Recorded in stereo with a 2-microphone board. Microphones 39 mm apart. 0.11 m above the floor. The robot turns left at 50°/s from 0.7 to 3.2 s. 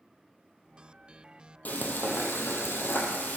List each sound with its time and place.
1.6 s frying: 135° left, 1.3 m; by 3.4 s 55° left, 1.3 m